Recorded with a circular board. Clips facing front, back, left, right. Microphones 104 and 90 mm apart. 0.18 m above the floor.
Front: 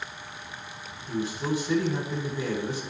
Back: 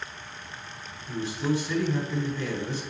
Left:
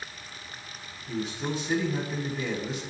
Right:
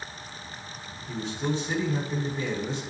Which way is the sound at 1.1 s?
15° left.